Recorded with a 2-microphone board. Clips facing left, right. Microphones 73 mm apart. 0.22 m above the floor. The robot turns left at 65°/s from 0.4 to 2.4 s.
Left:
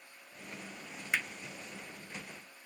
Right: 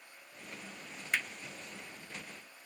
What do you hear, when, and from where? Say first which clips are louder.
1.1 s hammering: even; 10° left (ahead or behind), 0.6 m; by 1.3 s centre (ahead or behind), 0.6 m